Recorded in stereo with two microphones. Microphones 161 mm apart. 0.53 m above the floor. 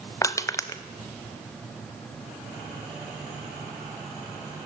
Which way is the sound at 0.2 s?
20° left (ahead or behind).